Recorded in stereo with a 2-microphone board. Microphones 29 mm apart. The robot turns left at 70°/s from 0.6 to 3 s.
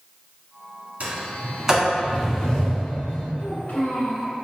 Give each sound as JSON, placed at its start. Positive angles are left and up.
{"t": 1.0, "sound": "a sliding door", "side_deg": -50, "distance_m": 1.3}
{"t": 3.4, "sound": "a child speaking", "side_deg": 75, "distance_m": 1.2}